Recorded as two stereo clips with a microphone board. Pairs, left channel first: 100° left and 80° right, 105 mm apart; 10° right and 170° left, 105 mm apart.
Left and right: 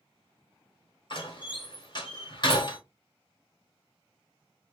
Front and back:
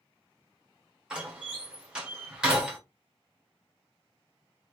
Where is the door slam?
90° left, 1.2 m.